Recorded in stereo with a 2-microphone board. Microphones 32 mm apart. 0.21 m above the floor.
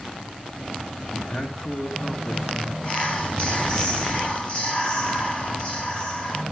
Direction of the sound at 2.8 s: 35° left (ahead or behind).